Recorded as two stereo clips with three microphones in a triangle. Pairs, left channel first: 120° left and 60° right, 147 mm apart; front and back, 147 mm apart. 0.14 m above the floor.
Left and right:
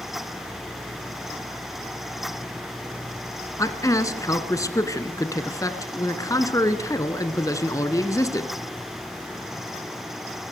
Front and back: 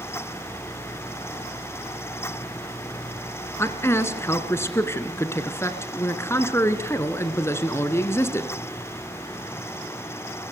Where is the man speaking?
65° left, 1.5 m.